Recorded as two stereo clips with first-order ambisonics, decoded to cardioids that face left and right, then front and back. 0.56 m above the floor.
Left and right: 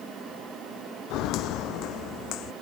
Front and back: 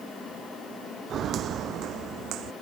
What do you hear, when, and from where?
1.1 s footsteps: 125° left; by 2.5 s 135° left